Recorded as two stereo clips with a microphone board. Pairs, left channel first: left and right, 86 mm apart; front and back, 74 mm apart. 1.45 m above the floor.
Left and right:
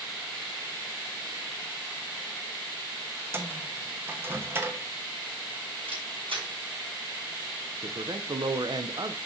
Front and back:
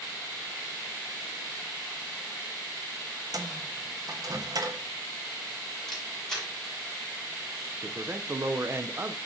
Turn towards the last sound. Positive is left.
turn(degrees=-120)